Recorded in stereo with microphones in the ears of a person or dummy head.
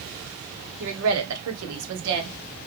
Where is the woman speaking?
50° right (ahead or behind), 1.1 m; by 2.3 s 60° right (ahead or behind), 1.5 m.